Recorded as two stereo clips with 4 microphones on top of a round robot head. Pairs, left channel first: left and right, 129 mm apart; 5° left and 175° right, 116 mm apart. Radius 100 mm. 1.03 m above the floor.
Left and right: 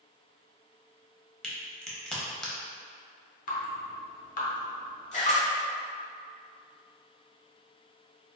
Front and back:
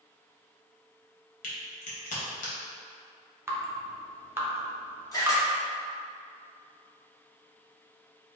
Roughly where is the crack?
Ahead.